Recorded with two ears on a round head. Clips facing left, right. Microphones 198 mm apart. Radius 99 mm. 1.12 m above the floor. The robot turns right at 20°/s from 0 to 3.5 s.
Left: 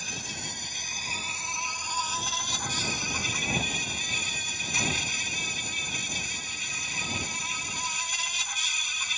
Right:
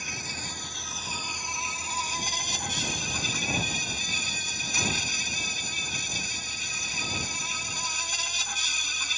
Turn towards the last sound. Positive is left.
turn(degrees=-140)